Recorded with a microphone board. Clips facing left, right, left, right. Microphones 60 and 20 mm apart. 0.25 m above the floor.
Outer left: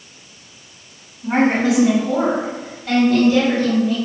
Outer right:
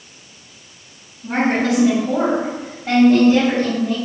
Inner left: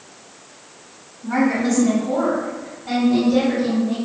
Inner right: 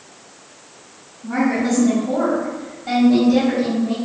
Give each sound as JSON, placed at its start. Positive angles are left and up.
{"t": 1.2, "sound": "a woman speaking", "side_deg": 30, "distance_m": 1.5}